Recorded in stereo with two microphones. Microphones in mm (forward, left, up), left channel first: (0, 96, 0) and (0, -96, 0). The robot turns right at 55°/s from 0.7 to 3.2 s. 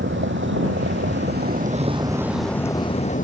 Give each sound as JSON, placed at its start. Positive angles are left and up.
{"t": 0.0, "sound": "a vehicle", "azimuth_deg": -95}